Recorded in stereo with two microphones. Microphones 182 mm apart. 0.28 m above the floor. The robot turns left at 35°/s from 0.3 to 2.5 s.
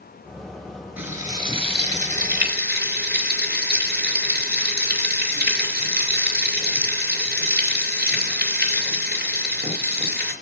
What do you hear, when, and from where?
1.0 s frying: 10° right, 4.5 m; by 10.3 s 65° right, 4.5 m